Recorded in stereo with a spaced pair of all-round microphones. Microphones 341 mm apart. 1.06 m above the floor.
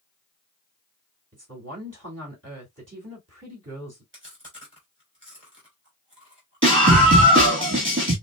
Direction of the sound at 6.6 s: 40° right (ahead or behind).